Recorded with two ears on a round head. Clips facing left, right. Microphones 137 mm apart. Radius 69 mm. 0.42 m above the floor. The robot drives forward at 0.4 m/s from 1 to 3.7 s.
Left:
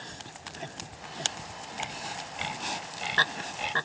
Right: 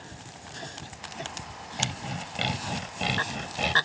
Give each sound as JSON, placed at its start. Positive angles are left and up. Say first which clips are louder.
{"t": 1.8, "sound": "sawing", "louder": "right 4 dB", "side_deg": -50}